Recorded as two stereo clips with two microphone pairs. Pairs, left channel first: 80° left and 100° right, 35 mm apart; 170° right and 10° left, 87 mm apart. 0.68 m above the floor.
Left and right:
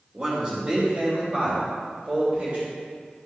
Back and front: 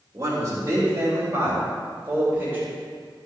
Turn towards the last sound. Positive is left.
turn(degrees=-55)